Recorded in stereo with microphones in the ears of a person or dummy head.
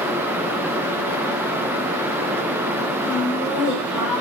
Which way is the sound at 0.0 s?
15° right (ahead or behind).